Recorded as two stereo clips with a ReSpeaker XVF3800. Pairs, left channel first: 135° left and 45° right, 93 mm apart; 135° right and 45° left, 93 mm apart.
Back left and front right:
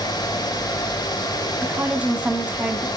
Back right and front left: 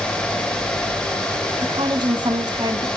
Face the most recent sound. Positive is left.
turn(degrees=25)